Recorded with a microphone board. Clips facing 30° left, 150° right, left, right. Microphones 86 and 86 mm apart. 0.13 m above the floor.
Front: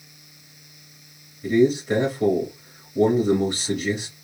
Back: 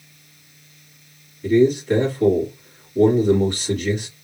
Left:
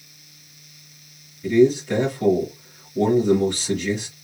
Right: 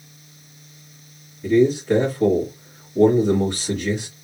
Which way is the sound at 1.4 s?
40° right.